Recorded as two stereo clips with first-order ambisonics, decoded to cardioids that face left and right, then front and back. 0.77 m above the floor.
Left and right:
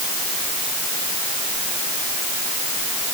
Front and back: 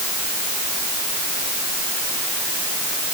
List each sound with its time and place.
Only background noise.